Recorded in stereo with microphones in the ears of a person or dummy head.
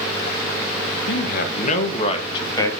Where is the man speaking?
55° left (ahead or behind), 1.3 m; by 2.7 s 20° left (ahead or behind), 2 m.